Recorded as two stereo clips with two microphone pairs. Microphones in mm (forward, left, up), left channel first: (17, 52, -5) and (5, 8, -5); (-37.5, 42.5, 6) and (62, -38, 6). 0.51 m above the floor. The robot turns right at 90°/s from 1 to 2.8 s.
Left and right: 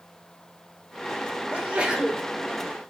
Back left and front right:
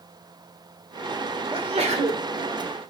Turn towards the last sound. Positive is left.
turn(degrees=40)